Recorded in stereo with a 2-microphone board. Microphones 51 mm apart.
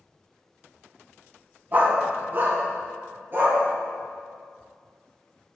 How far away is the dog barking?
About 1.3 m.